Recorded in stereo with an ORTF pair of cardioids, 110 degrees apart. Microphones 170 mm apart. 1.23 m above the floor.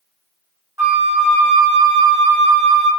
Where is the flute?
15° right, 1.0 m.